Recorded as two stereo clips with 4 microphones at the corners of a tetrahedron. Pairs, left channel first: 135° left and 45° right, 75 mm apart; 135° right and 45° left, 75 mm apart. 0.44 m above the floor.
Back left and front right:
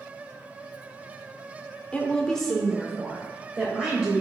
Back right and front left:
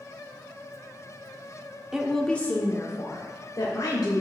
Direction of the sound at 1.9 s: 105° left.